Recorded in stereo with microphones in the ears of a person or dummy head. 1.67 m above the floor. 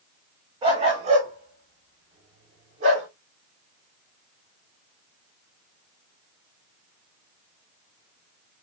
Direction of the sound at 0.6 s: 20° right (ahead or behind).